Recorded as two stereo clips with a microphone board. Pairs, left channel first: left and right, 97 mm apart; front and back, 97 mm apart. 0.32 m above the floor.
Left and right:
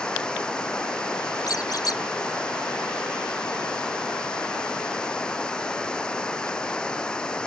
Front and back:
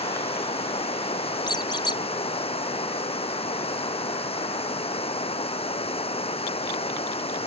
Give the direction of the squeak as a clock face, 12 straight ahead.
11 o'clock.